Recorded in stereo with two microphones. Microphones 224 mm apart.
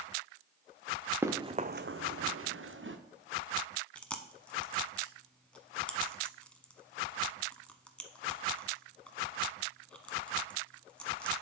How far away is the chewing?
About 0.6 m.